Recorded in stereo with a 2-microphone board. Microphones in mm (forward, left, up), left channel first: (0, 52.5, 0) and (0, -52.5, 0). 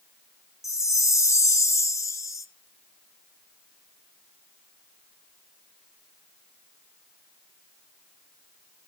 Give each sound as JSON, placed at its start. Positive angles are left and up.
{"t": 0.6, "sound": "a chime", "side_deg": 30, "distance_m": 0.5}